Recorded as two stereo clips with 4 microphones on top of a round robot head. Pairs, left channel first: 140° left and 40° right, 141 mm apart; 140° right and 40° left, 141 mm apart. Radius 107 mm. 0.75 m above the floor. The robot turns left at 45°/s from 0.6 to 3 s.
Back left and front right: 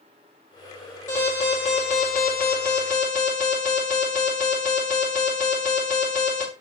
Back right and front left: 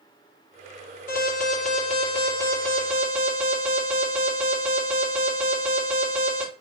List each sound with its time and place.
1.1 s an alarm: 150° right, 3.5 m; by 6.4 s 125° left, 3.5 m